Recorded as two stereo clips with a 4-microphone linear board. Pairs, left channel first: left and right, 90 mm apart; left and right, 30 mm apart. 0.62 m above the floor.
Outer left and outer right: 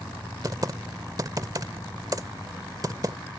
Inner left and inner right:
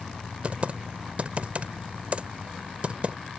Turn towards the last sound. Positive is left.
turn(degrees=-40)  # may be behind; listen again after turning